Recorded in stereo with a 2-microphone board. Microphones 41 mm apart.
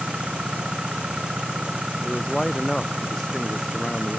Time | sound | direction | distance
0.0 | an engine running | 25° right (ahead or behind) | ?
2.0 | a man speaking | 10° left (ahead or behind) | ?